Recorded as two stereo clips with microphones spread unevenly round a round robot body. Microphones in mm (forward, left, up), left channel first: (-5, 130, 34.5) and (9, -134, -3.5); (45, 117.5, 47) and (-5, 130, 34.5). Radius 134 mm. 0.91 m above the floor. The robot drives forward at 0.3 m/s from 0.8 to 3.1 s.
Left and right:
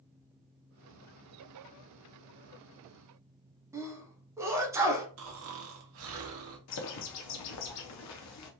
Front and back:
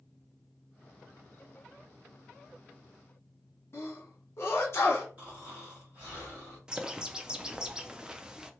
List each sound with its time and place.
3.7 s a sneeze: 25° right, 0.9 m
5.2 s snoring: 125° right, 0.6 m
6.7 s a bird: 105° left, 0.6 m